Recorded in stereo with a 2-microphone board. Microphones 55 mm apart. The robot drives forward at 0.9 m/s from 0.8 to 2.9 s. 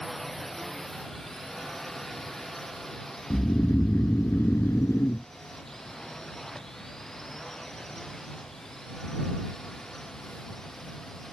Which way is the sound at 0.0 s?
5° left (ahead or behind).